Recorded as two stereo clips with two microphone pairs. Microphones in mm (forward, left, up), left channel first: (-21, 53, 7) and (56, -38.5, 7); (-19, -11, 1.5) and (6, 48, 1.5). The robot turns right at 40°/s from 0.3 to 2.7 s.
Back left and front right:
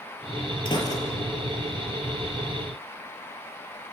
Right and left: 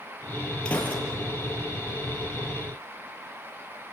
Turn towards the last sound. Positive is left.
turn(degrees=-100)